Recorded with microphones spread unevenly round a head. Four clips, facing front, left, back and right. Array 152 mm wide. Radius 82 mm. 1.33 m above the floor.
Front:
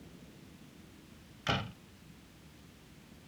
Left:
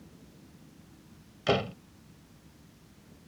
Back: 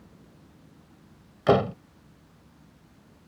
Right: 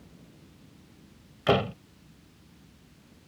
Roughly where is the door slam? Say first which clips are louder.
Right 4 dB, back 16 dB; behind.